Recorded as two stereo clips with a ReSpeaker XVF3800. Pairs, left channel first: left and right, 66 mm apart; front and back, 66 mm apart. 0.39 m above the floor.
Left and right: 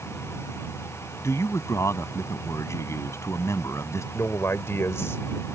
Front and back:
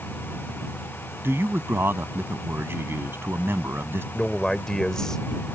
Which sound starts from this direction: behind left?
A man speaking, at 1.2 s.